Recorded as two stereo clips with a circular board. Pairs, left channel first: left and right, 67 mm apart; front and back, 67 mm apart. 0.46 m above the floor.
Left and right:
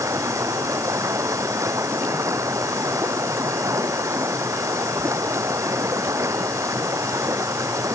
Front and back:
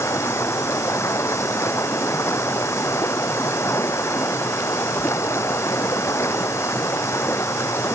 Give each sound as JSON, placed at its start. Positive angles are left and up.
{"t": 0.0, "sound": "running water", "azimuth_deg": -50}